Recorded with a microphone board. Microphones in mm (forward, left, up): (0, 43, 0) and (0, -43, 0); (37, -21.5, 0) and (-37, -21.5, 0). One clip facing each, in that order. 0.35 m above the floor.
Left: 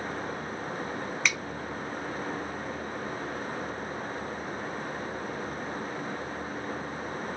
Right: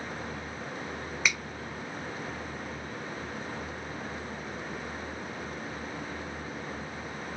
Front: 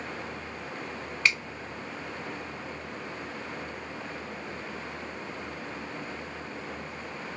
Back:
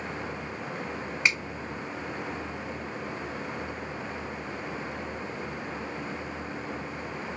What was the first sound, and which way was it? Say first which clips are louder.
A finger snap: right 1 dB, even; 165° right.